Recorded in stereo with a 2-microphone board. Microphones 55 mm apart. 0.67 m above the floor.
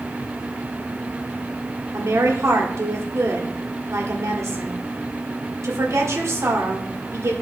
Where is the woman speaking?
60° right (ahead or behind), 1.9 m.